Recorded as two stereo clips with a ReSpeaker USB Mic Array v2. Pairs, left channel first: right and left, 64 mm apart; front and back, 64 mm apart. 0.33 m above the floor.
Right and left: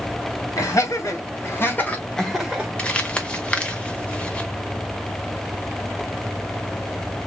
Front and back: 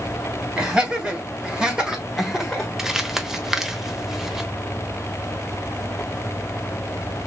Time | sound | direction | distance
0.6 | laughter | 110° right | 2 m
2.8 | crumpling | 110° right | 0.8 m